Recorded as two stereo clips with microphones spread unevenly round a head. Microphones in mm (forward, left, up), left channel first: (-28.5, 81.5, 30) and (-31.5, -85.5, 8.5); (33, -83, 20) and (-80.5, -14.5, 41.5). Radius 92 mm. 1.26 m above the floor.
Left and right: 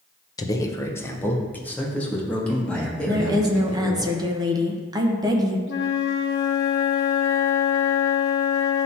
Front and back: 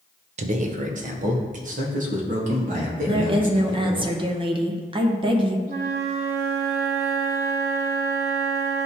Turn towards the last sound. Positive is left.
turn(degrees=110)